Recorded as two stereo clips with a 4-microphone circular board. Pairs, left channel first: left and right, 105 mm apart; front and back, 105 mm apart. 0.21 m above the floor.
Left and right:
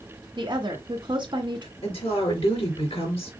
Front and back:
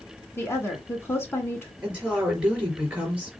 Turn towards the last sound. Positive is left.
turn(degrees=100)